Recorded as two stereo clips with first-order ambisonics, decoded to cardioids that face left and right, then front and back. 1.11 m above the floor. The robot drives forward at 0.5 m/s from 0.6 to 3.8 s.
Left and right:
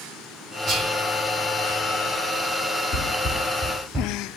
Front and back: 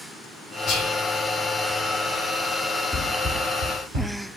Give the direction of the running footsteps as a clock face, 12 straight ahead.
10 o'clock.